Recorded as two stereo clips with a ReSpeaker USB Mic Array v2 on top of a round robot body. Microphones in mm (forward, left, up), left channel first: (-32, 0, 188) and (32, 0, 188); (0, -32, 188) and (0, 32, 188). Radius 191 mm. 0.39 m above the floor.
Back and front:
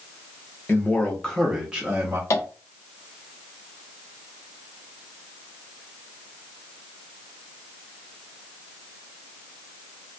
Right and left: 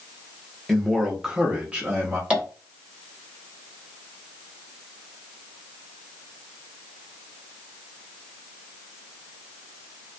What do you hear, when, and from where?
0.7 s a man speaking: 175° right, 1.2 m; by 2.2 s 40° left, 1.2 m
2.3 s tapping: 165° left, 1.7 m